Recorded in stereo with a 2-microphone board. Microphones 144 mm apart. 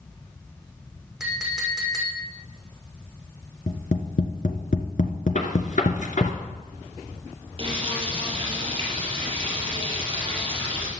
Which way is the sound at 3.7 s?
60° left (ahead or behind).